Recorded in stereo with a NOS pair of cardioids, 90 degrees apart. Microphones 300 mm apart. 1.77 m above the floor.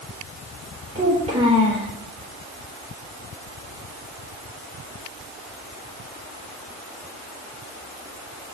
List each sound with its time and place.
0.9 s a child speaking: 20° right, 3 m